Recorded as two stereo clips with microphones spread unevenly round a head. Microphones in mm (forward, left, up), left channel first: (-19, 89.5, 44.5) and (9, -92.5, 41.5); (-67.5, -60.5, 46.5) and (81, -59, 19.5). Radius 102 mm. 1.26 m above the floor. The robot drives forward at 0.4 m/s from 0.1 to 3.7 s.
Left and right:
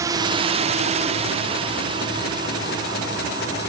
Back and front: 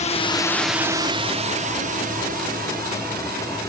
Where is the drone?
150° right; by 3.7 s 10° right.